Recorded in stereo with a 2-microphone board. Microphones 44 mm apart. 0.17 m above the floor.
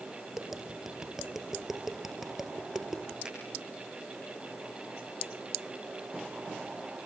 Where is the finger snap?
15° right (ahead or behind), 10 m.